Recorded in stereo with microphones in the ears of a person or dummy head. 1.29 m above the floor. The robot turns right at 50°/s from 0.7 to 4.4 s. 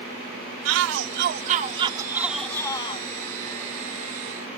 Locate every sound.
0.7 s a shout: 85° right; by 3.0 s 30° left